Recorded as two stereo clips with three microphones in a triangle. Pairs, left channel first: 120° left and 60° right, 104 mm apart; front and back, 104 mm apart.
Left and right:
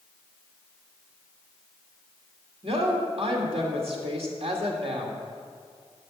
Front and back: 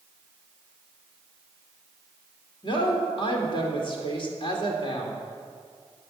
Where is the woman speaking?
40° right, 2 m.